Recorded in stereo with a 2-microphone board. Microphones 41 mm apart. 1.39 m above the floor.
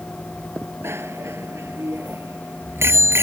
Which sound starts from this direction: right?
A bicycle bell, at 0.8 s.